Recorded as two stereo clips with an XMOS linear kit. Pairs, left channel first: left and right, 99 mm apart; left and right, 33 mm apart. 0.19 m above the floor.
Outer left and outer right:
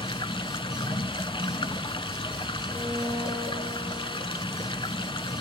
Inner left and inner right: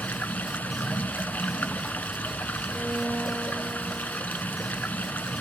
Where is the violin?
45° left (ahead or behind), 9.5 m.